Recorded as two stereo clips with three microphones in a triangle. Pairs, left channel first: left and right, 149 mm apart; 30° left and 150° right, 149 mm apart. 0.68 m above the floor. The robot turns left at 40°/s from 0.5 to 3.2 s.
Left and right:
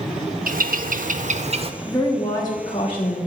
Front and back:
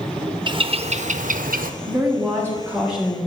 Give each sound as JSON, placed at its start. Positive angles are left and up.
{"t": 0.5, "sound": "a bird", "azimuth_deg": -90, "distance_m": 0.5}
{"t": 1.8, "sound": "a woman speaking", "azimuth_deg": 170, "distance_m": 1.5}